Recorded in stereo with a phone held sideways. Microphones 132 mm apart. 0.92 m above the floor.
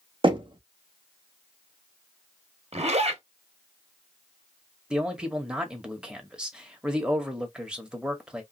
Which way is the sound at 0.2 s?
40° right (ahead or behind).